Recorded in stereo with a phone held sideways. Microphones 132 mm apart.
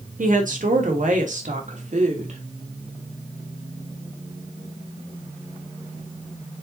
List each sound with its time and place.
0.2 s a woman speaking: 85° right, 3 m; by 2.4 s 60° right (ahead or behind), 3.5 m